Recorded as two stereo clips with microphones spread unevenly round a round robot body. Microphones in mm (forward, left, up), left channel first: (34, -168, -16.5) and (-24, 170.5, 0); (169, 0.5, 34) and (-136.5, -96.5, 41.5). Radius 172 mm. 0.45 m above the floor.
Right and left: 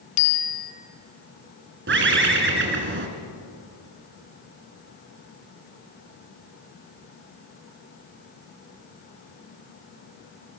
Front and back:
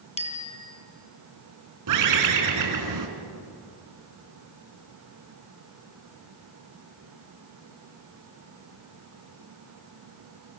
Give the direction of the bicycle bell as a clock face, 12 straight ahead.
2 o'clock.